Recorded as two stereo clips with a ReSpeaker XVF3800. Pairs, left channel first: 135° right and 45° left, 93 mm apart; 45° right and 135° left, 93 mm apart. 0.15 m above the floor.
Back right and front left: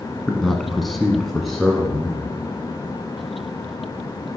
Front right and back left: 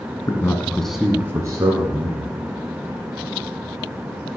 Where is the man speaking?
50° right, 1.2 m; by 2.3 s 130° left, 1.9 m.